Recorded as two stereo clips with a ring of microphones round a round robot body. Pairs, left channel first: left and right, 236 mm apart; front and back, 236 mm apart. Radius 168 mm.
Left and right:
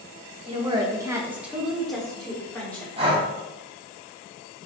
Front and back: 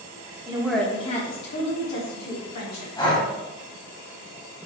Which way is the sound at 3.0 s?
50° right.